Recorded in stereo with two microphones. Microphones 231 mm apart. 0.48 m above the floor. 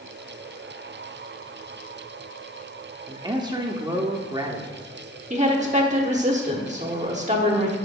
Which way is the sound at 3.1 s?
20° right (ahead or behind).